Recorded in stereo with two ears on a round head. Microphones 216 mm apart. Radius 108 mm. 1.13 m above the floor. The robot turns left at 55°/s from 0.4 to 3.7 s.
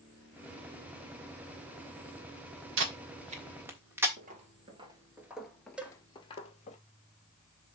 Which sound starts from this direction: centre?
A cowbell, at 5.8 s.